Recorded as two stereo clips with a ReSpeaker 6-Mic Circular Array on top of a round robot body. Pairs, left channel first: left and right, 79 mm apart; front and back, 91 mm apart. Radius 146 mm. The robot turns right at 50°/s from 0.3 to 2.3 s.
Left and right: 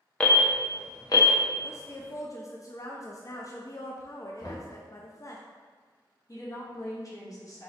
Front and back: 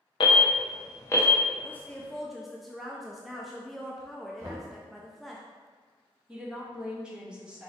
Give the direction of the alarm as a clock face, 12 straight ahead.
11 o'clock.